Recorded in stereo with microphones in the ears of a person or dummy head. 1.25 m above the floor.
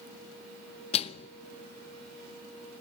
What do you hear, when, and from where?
0.9 s a microwave: 35° left (ahead or behind), 0.6 m